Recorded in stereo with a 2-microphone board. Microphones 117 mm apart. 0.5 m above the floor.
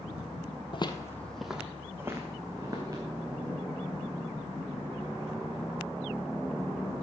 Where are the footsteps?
45° left (ahead or behind), 0.9 m; by 3.0 s 30° right (ahead or behind), 3 m.